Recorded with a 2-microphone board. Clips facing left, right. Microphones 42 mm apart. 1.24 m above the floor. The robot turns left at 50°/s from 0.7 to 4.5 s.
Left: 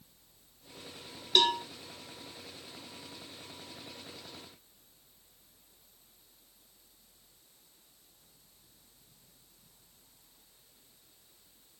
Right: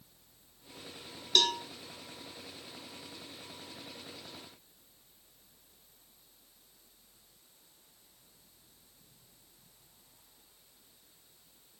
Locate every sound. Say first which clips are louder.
1.4 s a cowbell: left 2 dB; 15° left (ahead or behind), 1.1 m; by 1.6 s 30° left (ahead or behind), 1.1 m